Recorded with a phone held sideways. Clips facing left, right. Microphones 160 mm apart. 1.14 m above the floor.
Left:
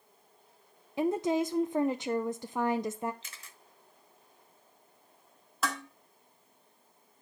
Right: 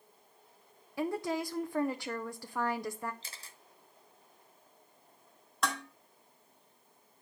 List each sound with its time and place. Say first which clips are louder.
1.0 s a woman speaking: left 6 dB; 20° left (ahead or behind), 0.5 m
3.2 s a camera shutter: right 1 dB; 35° right (ahead or behind), 1.0 m
5.6 s dishes clattering: even; centre (ahead or behind), 1.8 m